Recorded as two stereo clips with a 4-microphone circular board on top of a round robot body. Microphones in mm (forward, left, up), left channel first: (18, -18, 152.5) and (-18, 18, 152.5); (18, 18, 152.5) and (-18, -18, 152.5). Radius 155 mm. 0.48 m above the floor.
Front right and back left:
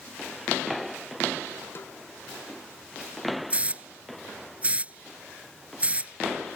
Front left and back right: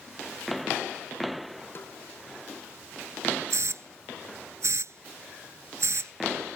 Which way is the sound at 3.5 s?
160° right.